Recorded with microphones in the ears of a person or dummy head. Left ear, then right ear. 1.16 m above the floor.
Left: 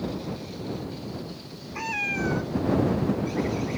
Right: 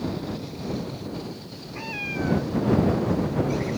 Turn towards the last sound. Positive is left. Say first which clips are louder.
# left 3 dB
turn(degrees=35)  # may be behind; listen again after turning